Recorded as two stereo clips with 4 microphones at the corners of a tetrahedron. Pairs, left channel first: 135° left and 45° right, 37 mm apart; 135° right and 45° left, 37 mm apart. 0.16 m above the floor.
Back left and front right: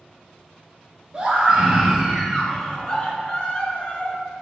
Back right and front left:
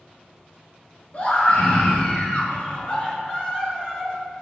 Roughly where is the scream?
Right.